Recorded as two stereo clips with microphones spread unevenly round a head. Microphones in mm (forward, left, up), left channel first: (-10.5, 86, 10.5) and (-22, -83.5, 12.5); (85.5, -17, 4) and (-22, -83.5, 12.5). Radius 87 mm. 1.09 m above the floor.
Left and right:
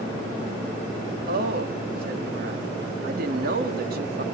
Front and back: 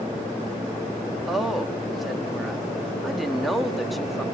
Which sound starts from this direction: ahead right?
A woman speaking, at 1.3 s.